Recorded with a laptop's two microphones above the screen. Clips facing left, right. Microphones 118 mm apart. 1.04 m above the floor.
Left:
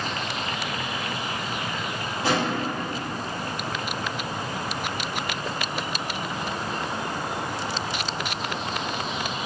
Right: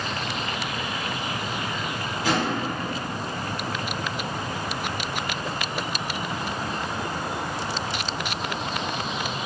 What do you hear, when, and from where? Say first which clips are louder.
2.2 s a drawer: even; 30° left (ahead or behind), 1.2 m